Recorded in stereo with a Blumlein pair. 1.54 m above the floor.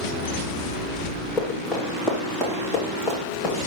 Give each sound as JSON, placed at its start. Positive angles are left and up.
{"t": 1.4, "sound": "running footsteps", "azimuth_deg": 15, "distance_m": 5.5}